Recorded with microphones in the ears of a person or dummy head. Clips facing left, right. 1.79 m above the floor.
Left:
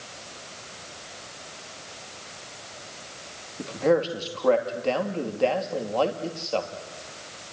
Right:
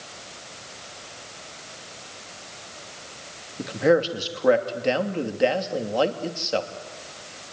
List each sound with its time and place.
3.6 s a man speaking: 15° right (ahead or behind), 2.5 m